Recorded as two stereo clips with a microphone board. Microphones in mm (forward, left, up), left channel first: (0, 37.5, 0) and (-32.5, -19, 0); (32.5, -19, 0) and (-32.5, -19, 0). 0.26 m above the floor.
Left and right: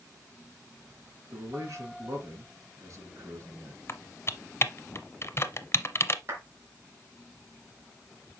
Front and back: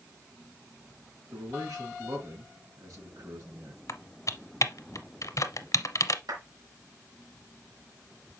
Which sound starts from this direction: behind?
A clap, at 6.3 s.